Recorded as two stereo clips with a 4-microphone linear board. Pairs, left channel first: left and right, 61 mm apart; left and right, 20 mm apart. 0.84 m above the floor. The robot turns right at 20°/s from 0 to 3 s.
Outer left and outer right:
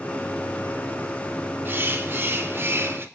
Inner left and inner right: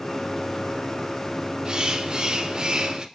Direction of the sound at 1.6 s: 35° right (ahead or behind).